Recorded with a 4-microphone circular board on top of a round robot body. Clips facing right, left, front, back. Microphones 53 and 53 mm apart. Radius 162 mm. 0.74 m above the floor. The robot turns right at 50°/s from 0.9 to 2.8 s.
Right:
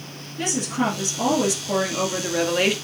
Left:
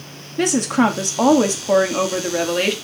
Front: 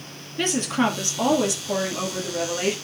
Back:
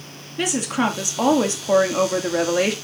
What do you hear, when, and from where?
0.4 s a woman speaking: 100° left, 2.5 m; by 2.7 s 170° right, 2.5 m